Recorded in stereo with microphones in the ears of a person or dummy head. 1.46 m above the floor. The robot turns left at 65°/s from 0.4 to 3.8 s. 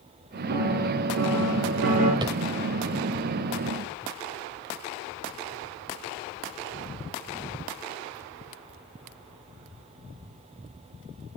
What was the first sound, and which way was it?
A piano, 50° right.